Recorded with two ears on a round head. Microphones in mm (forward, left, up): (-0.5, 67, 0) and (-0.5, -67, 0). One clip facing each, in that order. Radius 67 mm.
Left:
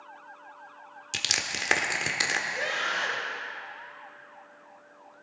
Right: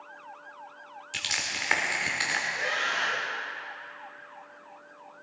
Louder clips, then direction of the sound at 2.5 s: Even; 60° left (ahead or behind).